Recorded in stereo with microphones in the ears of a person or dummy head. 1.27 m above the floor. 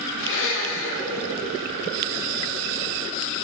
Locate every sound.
0.2 s a blender: 70° left (ahead or behind), 1.7 m